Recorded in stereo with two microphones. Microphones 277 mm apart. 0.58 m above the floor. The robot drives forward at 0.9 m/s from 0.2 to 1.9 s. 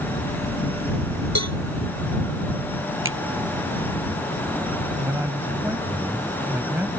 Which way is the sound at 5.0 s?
10° right (ahead or behind).